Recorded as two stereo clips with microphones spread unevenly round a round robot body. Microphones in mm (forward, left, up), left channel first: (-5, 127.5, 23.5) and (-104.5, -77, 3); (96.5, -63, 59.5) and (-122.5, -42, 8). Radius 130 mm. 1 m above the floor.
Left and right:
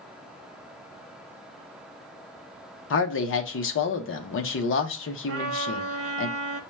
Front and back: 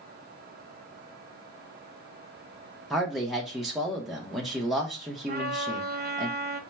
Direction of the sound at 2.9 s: 95° left.